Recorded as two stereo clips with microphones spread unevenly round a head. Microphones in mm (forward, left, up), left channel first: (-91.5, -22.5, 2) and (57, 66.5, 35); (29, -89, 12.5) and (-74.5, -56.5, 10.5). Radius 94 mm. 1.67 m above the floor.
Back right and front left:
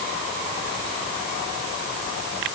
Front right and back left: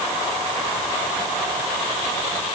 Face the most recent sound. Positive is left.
No sound to turn to.